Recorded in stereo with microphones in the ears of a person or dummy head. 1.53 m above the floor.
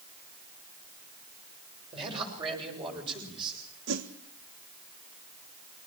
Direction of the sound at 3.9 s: 70° right (ahead or behind).